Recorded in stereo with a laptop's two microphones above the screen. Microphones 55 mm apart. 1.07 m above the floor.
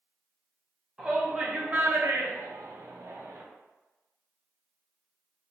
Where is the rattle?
No rattle in this recording.